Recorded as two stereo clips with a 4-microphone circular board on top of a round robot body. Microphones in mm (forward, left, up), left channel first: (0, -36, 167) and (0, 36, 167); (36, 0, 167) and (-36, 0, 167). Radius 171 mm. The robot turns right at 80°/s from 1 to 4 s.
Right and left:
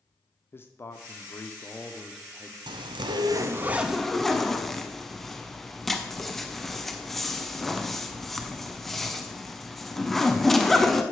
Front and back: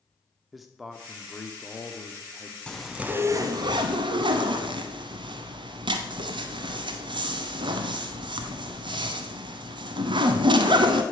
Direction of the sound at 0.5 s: 95° right.